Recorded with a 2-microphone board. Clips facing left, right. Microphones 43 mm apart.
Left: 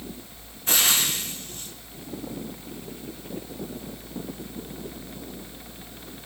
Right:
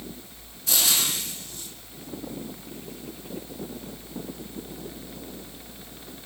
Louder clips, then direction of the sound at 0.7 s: Left 2 dB; 40° left (ahead or behind).